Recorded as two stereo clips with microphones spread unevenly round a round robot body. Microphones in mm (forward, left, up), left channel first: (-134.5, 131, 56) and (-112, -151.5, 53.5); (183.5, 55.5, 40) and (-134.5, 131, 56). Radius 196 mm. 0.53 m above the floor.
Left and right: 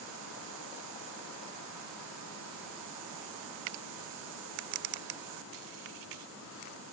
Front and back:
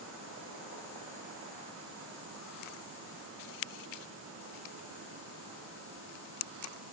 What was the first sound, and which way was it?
Only background noise.